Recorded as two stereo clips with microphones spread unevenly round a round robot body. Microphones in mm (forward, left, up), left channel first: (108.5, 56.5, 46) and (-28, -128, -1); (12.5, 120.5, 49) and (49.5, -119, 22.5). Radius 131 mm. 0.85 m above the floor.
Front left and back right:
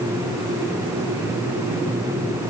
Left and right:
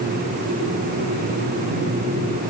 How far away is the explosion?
I don't hear an explosion.